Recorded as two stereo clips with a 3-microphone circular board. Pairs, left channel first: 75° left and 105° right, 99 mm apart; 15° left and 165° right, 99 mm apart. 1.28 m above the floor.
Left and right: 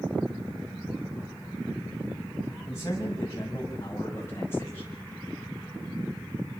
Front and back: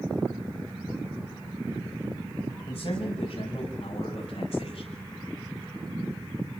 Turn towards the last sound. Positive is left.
turn(degrees=5)